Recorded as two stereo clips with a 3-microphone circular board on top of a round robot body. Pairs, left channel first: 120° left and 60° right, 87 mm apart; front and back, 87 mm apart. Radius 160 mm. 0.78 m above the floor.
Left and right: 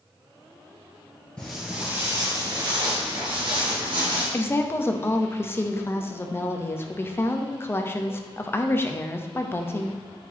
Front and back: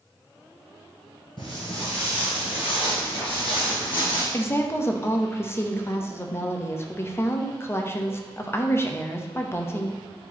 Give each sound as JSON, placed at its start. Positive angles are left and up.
{"t": 1.4, "sound": "footsteps", "azimuth_deg": 40, "distance_m": 1.1}
{"t": 4.3, "sound": "a woman speaking", "azimuth_deg": 60, "distance_m": 1.0}